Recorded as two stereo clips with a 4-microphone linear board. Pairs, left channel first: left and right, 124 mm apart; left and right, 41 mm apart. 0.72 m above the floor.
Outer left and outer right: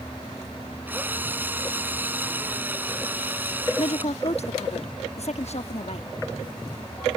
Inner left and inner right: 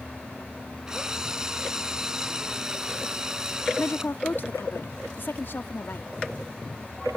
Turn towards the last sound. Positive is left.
turn(degrees=60)  # may be behind; listen again after turning